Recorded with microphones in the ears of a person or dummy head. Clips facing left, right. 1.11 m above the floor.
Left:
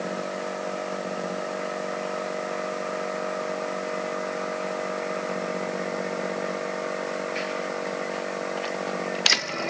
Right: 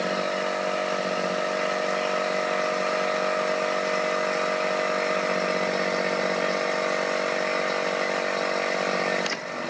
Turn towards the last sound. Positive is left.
No sound to turn to.